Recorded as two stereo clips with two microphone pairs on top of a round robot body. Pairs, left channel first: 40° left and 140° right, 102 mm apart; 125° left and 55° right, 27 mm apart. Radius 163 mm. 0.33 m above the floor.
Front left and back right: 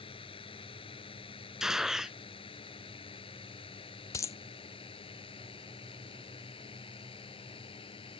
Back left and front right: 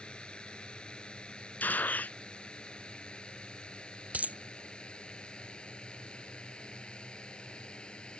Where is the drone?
70° left.